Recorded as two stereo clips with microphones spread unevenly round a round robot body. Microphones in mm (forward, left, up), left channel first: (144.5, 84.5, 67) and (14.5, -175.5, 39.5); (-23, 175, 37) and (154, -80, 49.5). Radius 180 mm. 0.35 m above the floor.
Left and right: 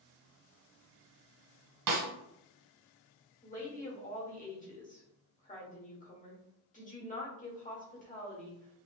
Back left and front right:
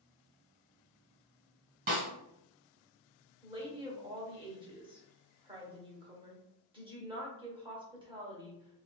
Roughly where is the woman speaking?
Ahead.